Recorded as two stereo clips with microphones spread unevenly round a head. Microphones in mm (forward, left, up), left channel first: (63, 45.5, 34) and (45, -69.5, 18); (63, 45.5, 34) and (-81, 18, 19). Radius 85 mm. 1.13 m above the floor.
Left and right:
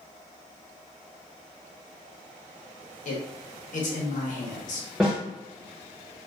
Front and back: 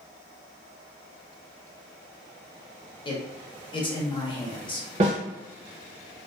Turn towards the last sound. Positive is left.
turn(degrees=170)